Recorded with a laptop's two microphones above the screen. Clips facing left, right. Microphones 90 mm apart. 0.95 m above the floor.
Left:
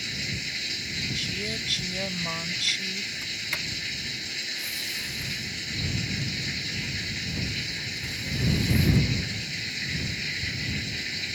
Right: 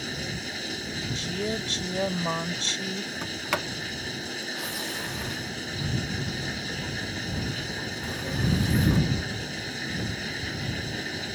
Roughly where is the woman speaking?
Right.